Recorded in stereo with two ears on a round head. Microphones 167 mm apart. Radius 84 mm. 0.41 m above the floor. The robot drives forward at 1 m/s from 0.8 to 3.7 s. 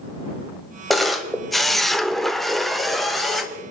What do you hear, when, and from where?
0.9 s a camera shutter: centre (ahead or behind), 1.3 m